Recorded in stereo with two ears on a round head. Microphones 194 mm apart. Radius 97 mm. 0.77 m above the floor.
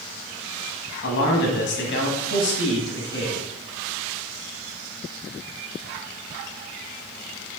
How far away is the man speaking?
About 1.6 m.